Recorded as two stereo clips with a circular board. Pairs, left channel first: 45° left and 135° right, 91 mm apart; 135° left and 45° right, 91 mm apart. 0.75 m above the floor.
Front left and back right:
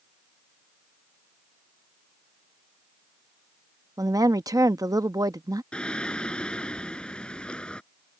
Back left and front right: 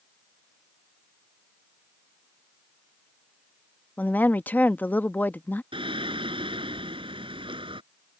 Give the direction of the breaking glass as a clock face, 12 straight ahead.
I don't hear breaking glass.